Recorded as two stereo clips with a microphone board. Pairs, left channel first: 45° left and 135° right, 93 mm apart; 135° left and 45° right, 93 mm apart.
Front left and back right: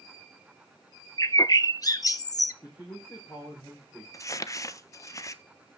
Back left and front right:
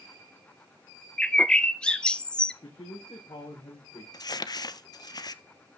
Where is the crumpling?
100° left, 0.6 m.